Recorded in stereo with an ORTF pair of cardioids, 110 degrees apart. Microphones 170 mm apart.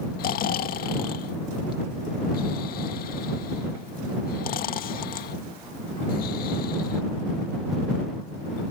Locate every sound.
0.2 s snoring: 60° left